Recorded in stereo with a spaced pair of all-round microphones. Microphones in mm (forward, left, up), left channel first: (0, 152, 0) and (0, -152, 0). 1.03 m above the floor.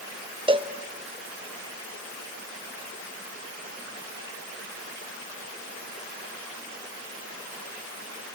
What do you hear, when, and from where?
0.5 s a cowbell: 15° right (ahead or behind), 0.5 m